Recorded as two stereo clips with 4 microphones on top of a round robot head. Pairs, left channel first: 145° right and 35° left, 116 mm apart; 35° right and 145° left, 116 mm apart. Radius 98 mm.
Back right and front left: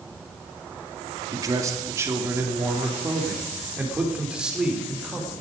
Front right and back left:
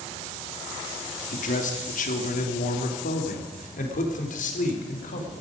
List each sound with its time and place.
1.3 s a man speaking: 25° right, 2.5 m; by 5.3 s 50° right, 4 m